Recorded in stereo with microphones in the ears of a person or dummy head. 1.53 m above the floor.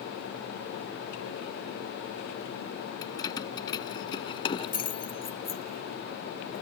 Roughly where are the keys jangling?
Centre.